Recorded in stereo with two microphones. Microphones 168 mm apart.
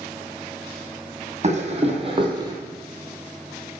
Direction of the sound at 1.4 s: 40° right (ahead or behind).